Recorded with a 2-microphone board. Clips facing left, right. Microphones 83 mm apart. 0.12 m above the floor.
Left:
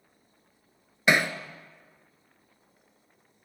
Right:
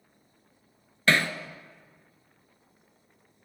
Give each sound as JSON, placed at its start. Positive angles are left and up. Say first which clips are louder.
{"t": 1.1, "sound": "hammering", "louder": "left 1 dB", "side_deg": 15, "distance_m": 0.7}